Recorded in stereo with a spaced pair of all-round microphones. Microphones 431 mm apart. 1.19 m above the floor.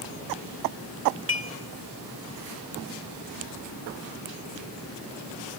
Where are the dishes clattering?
30° right (ahead or behind), 2 m.